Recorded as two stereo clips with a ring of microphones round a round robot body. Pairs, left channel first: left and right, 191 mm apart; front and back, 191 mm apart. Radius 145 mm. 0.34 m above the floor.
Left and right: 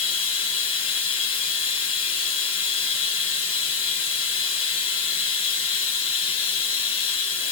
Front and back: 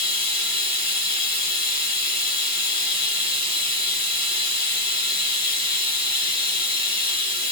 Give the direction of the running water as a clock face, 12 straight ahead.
8 o'clock.